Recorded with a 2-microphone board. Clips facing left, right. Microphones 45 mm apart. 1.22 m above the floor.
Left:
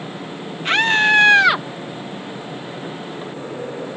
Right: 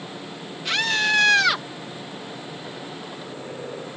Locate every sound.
0.7 s a scream: 40° left (ahead or behind); by 1.6 s 20° left (ahead or behind)